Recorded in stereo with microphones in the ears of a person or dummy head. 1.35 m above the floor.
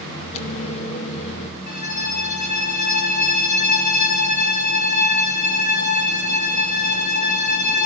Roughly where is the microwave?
Left.